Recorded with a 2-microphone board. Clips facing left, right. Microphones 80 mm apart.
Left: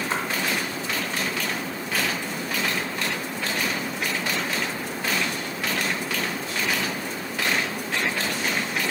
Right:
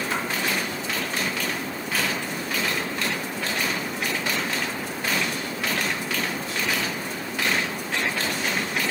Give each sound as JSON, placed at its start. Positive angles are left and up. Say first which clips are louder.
{"t": 0.1, "sound": "a splash", "louder": "left 1 dB", "side_deg": 30, "distance_m": 2.0}